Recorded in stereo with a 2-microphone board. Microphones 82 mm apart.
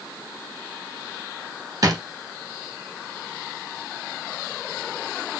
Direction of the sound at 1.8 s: 45° right (ahead or behind).